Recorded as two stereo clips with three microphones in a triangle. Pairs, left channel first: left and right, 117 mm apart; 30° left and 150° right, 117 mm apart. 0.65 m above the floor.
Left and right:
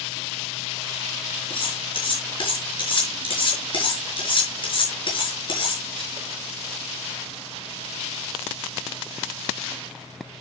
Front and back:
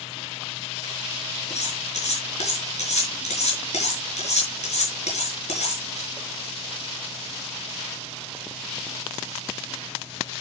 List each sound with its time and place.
1.5 s cutlery clinking: 45° left, 5 m